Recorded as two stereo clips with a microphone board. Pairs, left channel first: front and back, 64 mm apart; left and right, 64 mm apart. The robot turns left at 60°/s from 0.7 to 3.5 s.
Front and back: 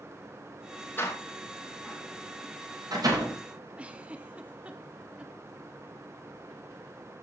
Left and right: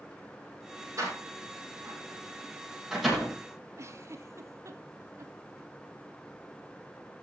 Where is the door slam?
50° right, 6.5 m; by 3.4 s 165° left, 6.5 m.